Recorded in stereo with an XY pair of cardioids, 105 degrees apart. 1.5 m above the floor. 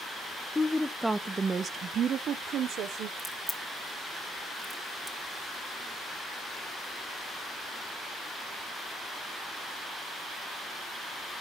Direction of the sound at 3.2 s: Straight ahead.